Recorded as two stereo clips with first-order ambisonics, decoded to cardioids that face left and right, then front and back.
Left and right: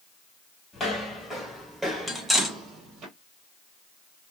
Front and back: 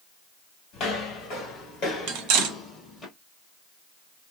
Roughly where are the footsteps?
Ahead left.